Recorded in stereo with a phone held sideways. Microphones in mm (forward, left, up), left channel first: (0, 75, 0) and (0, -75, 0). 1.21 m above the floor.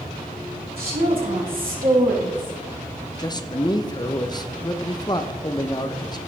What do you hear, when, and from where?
0.8 s a woman speaking: 80° right, 5.5 m; by 2.5 s 70° right (ahead or behind), 3.5 m
3.2 s a man speaking: 30° left (ahead or behind), 0.8 m